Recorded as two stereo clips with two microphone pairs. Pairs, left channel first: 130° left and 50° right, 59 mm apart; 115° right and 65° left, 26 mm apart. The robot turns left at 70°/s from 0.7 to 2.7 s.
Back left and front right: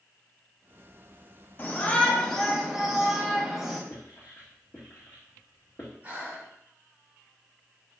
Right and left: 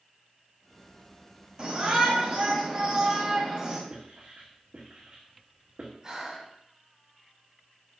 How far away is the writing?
About 2.5 m.